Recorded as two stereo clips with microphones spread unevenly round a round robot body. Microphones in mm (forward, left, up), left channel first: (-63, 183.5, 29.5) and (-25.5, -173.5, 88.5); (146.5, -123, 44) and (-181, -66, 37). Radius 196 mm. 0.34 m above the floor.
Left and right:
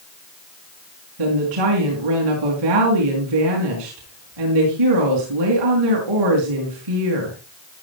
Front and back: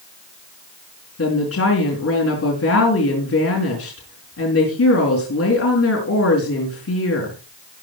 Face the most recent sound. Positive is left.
turn(degrees=-55)